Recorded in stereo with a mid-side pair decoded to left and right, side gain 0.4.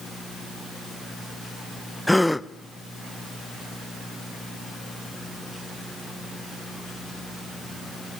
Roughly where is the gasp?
Ahead.